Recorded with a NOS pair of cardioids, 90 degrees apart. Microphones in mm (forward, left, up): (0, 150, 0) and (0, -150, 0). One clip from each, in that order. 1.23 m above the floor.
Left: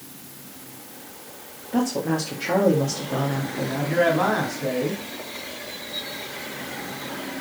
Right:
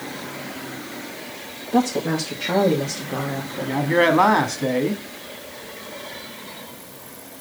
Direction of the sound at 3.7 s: 60° right.